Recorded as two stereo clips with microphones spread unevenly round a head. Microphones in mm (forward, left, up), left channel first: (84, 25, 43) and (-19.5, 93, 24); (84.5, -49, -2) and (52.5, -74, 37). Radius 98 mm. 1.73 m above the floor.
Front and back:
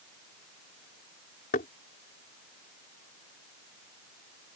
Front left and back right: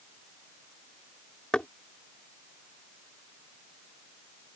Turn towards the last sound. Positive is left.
turn(degrees=-45)